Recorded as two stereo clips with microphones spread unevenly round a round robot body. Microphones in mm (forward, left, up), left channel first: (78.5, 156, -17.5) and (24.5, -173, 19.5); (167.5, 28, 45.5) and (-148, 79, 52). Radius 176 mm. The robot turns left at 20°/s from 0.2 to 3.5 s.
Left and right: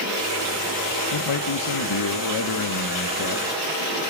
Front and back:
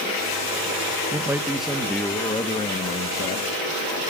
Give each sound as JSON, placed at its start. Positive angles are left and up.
{"t": 1.1, "sound": "a man speaking", "azimuth_deg": 90, "distance_m": 1.6}